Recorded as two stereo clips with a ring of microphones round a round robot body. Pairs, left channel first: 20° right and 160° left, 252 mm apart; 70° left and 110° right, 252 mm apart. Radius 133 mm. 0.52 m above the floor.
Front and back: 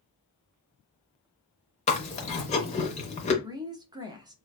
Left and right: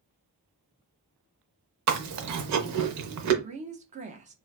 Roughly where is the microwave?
No microwave in this recording.